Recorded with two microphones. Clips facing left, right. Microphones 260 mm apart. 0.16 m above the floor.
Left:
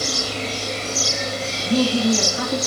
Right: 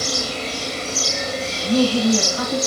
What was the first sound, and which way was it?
A woman speaking, 55° right (ahead or behind).